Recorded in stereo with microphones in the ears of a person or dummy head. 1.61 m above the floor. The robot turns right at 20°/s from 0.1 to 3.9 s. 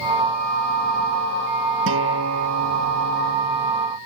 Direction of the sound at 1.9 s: 105° right.